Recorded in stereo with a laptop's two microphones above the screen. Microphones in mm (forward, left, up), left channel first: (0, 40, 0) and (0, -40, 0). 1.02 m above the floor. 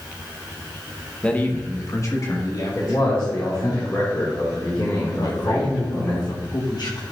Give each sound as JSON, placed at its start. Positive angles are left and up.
{"t": 1.2, "sound": "a man speaking", "side_deg": 15, "distance_m": 0.8}
{"t": 2.8, "sound": "a man speaking", "side_deg": 35, "distance_m": 1.7}
{"t": 5.2, "sound": "a man speaking", "side_deg": 60, "distance_m": 1.3}